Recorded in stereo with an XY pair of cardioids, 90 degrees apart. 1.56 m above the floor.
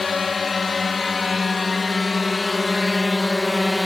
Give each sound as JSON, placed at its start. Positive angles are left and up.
{"t": 0.0, "sound": "a drone", "azimuth_deg": 40}